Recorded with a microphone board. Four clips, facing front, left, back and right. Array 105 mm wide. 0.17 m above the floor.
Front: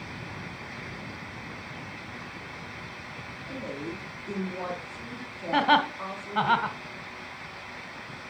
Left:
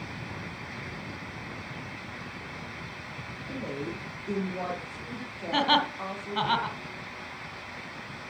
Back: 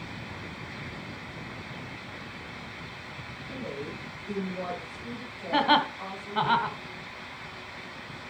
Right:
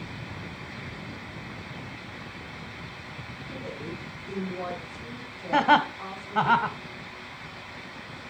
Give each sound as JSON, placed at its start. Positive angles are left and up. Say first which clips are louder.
{"t": 3.5, "sound": "a woman speaking", "louder": "left 3 dB, front 1 dB", "azimuth_deg": 75, "distance_m": 5.0}
{"t": 5.5, "sound": "laughter", "louder": "right 4 dB, front 1 dB", "azimuth_deg": -75, "distance_m": 1.1}